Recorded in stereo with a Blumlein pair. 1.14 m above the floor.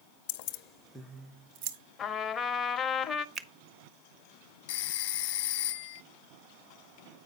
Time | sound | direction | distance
0.3 | keys jangling | 55° left | 0.8 m
2.0 | a trumpet | 20° left | 0.6 m
3.4 | a finger snap | 25° right | 0.6 m
4.7 | a phone ringing | 50° left | 0.9 m